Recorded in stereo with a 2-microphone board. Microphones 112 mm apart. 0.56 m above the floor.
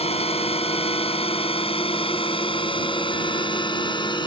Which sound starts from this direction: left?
A drone, at 0.0 s.